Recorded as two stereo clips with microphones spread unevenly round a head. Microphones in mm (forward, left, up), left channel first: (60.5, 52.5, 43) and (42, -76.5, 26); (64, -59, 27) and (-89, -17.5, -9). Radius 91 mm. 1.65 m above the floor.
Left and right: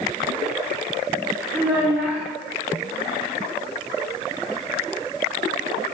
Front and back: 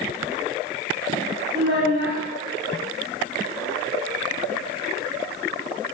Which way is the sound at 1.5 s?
170° left.